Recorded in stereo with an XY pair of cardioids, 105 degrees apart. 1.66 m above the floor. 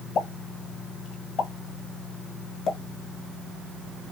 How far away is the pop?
About 1.5 m.